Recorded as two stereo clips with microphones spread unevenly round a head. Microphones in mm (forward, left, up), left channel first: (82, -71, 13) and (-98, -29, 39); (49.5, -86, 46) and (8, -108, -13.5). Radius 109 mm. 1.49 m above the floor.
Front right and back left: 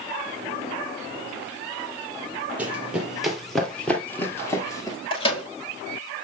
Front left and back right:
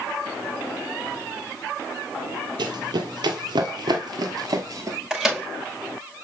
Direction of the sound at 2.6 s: 125° right.